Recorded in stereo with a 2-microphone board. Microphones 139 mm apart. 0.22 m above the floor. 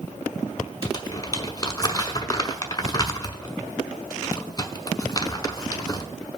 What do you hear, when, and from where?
0.8 s crumpling: 30° left (ahead or behind), 0.9 m